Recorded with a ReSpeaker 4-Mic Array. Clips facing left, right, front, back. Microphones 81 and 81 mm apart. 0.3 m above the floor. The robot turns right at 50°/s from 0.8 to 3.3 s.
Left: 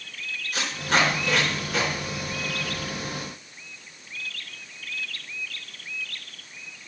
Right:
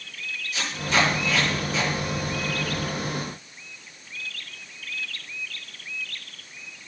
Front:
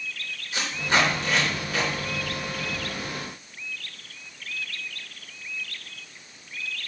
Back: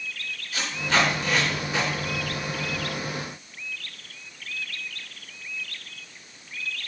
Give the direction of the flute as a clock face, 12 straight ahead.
I don't hear a flute.